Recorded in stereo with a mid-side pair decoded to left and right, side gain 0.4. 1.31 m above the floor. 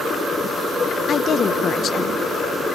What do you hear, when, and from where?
1.1 s a woman speaking: 55° left, 1.2 m